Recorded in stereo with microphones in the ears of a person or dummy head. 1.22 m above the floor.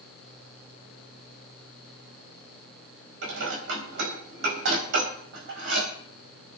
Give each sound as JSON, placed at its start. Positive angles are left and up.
{"t": 3.2, "sound": "dishes clattering", "side_deg": -70, "distance_m": 4.5}